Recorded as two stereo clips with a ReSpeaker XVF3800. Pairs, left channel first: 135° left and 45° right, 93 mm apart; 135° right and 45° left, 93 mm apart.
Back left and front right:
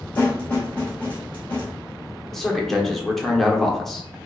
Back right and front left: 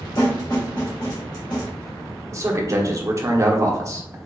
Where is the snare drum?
155° right, 1.7 m.